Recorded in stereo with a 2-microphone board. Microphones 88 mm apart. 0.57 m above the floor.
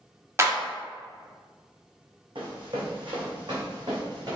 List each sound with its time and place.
0.4 s a clap: 30° right (ahead or behind), 0.6 m
2.4 s running footsteps: 65° right (ahead or behind), 1.4 m; by 4.3 s 45° right (ahead or behind), 1.6 m